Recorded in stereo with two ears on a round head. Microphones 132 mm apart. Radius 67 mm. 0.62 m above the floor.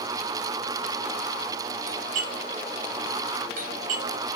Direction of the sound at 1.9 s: 60° right (ahead or behind).